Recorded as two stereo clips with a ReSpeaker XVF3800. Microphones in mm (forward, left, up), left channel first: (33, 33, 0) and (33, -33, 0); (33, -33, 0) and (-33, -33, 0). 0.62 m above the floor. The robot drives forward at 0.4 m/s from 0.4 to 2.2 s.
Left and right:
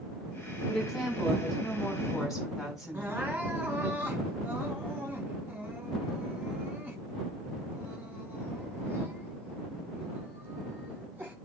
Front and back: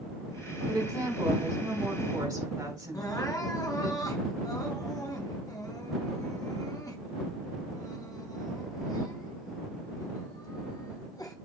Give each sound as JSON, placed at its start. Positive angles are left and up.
{"t": 0.7, "sound": "a woman speaking", "azimuth_deg": 175, "distance_m": 5.0}
{"t": 2.9, "sound": "crying", "azimuth_deg": -30, "distance_m": 2.5}